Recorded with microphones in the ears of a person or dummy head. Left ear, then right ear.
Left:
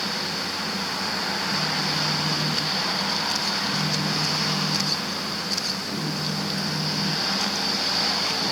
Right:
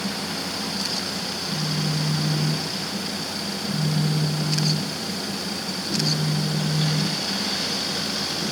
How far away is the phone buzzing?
About 4 m.